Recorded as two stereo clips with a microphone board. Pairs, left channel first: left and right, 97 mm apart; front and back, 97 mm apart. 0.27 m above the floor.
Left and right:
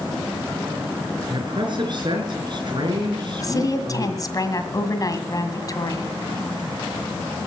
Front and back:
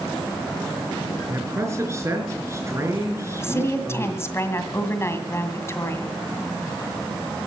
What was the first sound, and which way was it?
A man speaking, 120° right.